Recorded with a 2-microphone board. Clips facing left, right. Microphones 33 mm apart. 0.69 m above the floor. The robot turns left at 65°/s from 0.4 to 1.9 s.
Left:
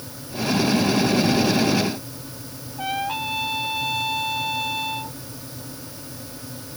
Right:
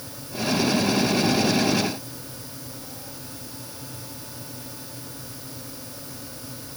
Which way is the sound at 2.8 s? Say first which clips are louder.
Left 15 dB; 80° left.